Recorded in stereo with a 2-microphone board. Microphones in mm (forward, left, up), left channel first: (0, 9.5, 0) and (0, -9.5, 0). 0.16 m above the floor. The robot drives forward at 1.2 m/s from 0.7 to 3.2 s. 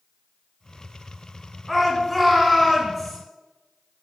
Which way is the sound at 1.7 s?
Centre (ahead or behind).